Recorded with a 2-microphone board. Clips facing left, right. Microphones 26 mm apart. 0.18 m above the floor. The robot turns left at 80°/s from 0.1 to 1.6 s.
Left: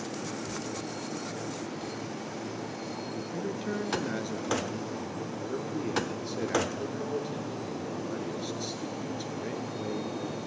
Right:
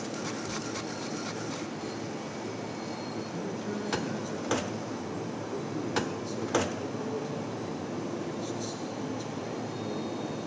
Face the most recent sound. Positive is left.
turn(degrees=25)  # may be behind; listen again after turning